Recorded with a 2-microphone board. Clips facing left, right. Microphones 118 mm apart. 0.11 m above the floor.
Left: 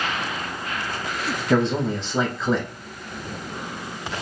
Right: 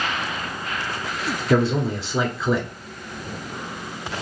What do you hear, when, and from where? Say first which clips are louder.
1.5 s a man speaking: right 1 dB; 5° right (ahead or behind), 1.2 m